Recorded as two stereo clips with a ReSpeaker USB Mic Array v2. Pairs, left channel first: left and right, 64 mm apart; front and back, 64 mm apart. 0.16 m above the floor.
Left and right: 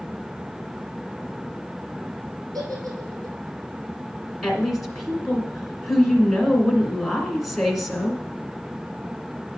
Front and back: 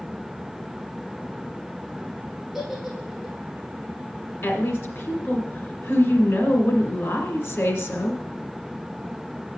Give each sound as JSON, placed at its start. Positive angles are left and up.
{"t": 2.5, "sound": "a giggle", "azimuth_deg": -95, "distance_m": 3.0}
{"t": 4.4, "sound": "a woman speaking", "azimuth_deg": 0, "distance_m": 2.0}